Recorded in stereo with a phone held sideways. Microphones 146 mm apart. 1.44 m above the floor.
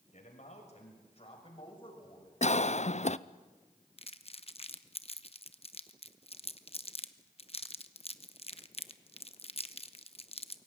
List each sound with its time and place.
0.1 s a man speaking: 55° left (ahead or behind), 6 m; by 2.3 s 30° left (ahead or behind), 6.5 m
2.4 s a cough: 50° left (ahead or behind), 0.6 m
4.0 s crumpling: 45° left (ahead or behind), 0.9 m